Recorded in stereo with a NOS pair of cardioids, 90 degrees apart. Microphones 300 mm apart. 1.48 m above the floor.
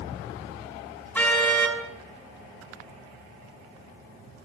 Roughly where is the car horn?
Ahead.